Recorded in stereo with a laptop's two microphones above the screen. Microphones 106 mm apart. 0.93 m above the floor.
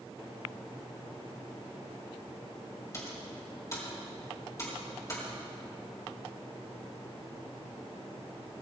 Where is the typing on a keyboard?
30° left (ahead or behind), 4 m.